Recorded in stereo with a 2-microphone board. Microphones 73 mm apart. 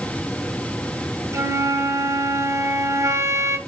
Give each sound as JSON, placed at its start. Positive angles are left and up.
{"t": 1.3, "sound": "a flute", "side_deg": -40, "distance_m": 0.8}